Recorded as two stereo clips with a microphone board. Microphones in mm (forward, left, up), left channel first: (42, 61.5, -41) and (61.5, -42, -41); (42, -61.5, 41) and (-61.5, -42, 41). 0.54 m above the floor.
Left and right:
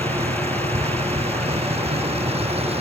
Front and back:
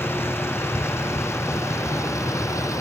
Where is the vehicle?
80° right; by 2.8 s 70° right.